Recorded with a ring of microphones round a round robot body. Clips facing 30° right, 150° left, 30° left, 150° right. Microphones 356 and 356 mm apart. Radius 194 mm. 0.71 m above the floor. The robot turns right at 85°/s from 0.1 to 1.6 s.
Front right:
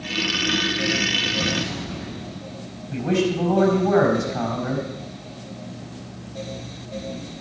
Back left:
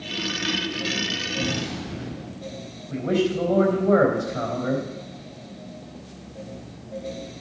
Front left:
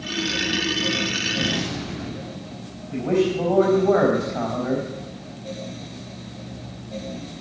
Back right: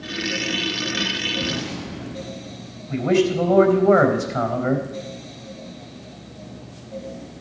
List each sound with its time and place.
1.4 s an explosion: 60° left, 5.5 m; by 2.6 s 80° left, 5.5 m
2.9 s a man speaking: 115° right, 4 m